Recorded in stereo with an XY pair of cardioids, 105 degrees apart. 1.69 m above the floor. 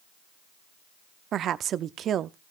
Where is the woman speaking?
60° right, 0.7 m.